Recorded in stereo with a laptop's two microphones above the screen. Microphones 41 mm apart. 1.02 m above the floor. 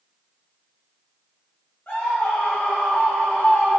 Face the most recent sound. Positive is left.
turn(degrees=45)  # may be behind; listen again after turning